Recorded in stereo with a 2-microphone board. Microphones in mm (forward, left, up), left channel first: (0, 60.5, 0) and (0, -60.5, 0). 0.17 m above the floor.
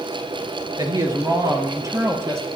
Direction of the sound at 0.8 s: 35° right (ahead or behind).